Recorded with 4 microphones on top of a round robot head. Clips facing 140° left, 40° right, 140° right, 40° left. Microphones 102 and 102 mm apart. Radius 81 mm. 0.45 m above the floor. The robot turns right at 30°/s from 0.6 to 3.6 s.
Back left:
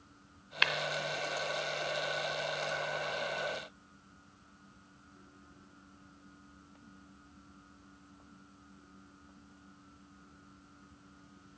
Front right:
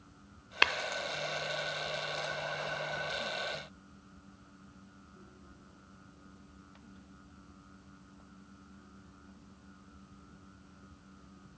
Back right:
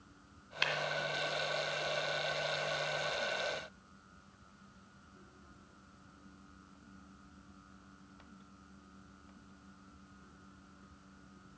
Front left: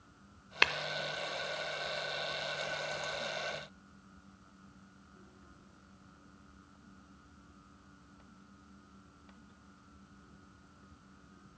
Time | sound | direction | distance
0.6 | tapping | 10° left | 0.6 m